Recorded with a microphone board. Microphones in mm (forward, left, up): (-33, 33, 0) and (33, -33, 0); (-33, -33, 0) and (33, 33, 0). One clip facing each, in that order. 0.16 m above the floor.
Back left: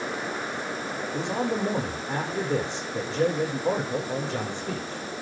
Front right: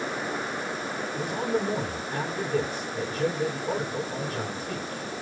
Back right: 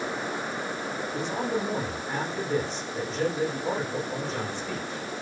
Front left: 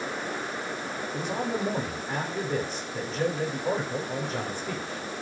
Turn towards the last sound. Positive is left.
turn(degrees=130)